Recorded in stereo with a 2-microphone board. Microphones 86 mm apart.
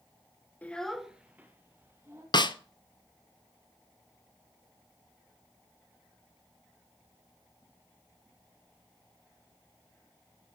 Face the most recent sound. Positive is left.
turn(degrees=60)  # may be behind; listen again after turning